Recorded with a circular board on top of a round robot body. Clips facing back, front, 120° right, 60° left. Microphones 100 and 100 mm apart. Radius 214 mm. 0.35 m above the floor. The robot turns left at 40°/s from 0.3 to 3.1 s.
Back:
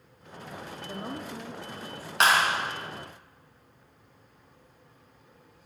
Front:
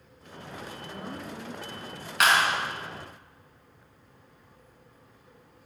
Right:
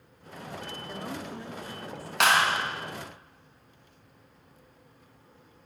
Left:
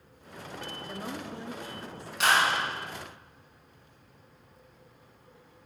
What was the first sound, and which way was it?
A woman speaking, 155° left.